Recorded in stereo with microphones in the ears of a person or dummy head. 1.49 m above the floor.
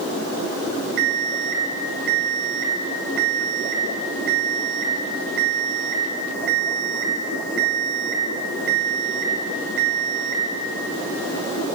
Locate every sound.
1.0 s an alarm clock: 60° right (ahead or behind), 3.5 m